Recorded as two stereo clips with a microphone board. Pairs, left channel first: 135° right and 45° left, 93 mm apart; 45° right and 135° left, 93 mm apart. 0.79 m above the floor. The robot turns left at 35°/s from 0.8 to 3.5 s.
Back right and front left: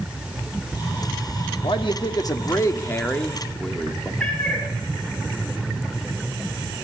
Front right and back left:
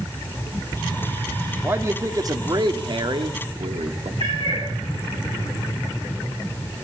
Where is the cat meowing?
145° left, 7.5 m.